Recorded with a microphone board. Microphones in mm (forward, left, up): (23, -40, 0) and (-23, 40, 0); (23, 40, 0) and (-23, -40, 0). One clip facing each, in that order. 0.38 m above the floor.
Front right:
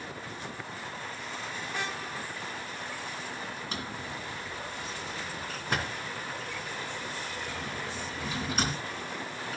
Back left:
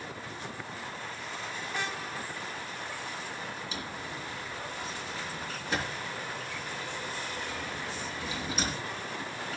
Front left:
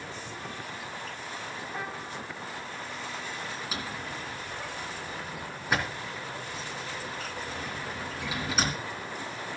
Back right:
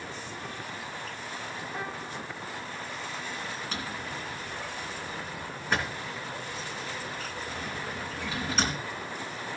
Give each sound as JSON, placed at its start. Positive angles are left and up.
{"t": 3.7, "sound": "a drawer", "azimuth_deg": -20, "distance_m": 2.5}